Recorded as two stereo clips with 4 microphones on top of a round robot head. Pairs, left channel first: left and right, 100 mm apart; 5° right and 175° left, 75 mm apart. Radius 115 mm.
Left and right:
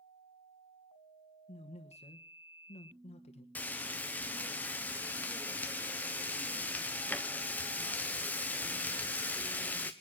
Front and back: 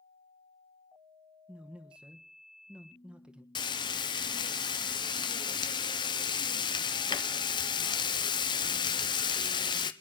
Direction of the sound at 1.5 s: 100° left.